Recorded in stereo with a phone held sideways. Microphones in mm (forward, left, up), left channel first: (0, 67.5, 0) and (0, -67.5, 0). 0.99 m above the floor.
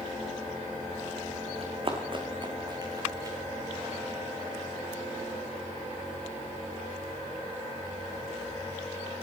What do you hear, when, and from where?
1.6 s running footsteps: 50° right (ahead or behind), 3 m; by 3.4 s 20° right (ahead or behind), 3.5 m